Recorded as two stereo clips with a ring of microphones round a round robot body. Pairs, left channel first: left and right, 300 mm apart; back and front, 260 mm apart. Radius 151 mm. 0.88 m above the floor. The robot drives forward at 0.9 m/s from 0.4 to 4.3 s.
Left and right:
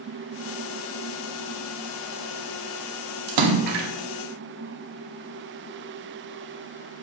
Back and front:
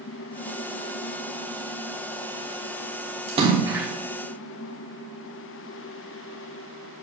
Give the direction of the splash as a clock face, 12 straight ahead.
2 o'clock.